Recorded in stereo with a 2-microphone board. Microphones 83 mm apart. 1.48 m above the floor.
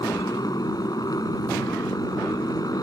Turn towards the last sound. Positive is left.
turn(degrees=50)  # may be behind; listen again after turning